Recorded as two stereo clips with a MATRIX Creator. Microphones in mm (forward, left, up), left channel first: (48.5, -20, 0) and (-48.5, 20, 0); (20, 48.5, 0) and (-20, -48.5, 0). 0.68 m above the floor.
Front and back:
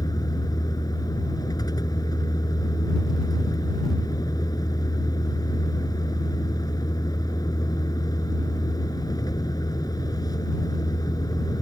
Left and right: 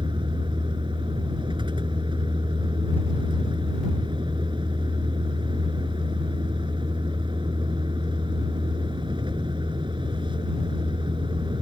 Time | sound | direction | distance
0.0 | a vehicle | 75° right | ?